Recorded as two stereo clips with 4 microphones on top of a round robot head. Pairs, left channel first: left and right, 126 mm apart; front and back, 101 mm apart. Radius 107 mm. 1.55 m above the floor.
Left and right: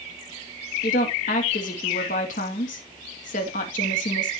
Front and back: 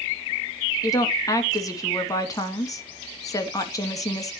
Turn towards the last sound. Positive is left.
turn(degrees=55)